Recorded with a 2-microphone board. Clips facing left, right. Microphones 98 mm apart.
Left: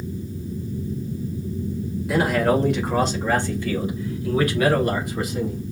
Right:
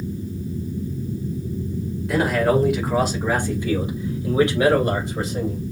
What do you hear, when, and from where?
2.1 s a man speaking: 5° left (ahead or behind), 2.0 m; by 5.6 s 35° right (ahead or behind), 3 m